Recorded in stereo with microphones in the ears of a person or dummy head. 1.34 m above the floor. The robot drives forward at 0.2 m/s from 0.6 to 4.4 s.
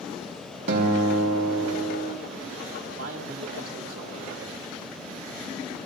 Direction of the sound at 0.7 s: 60° right (ahead or behind).